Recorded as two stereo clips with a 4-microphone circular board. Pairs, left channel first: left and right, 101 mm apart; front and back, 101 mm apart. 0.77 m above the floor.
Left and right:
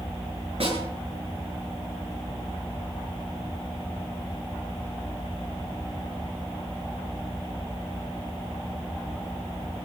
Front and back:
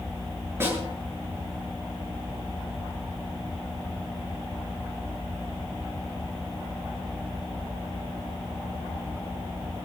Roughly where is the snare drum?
Behind right.